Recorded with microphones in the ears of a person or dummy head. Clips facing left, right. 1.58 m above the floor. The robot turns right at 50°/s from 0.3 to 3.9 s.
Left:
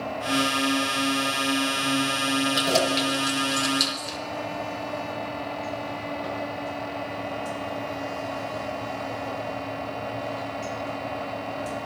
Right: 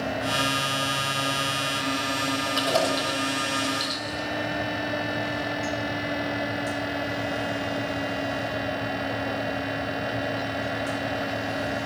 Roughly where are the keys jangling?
Centre.